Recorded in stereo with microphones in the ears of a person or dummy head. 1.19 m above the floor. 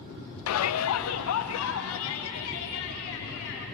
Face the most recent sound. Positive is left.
turn(degrees=75)  # may be behind; listen again after turning